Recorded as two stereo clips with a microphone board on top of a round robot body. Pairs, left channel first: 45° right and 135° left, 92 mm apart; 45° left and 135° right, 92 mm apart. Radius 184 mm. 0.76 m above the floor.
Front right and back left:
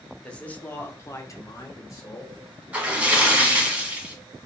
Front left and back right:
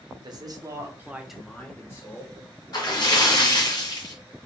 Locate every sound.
0.2 s a man speaking: 120° right, 1.3 m; by 2.4 s straight ahead, 1.4 m
2.7 s a splash: 65° left, 1.6 m